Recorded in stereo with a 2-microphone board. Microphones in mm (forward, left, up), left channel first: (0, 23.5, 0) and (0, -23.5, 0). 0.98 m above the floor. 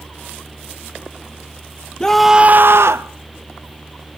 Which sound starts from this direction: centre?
A scream, at 2.0 s.